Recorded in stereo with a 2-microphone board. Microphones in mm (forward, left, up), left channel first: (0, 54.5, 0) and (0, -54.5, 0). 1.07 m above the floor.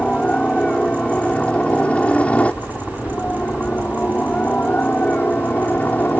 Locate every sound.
0.0 s a helicopter: 10° left (ahead or behind); by 6.2 s 15° left (ahead or behind)